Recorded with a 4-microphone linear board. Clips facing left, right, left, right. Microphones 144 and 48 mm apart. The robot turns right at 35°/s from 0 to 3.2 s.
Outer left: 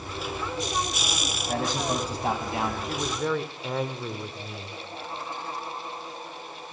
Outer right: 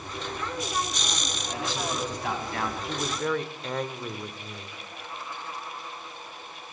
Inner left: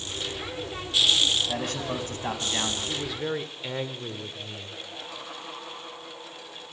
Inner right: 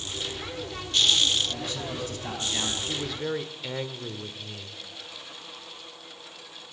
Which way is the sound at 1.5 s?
120° left.